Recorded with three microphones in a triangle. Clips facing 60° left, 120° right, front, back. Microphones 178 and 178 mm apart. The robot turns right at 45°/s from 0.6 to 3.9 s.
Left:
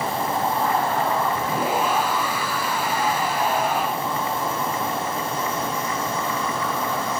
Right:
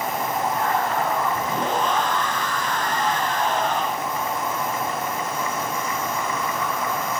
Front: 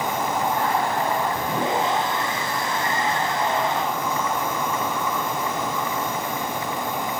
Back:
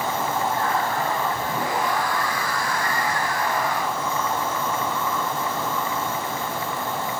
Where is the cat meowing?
No cat meowing in this recording.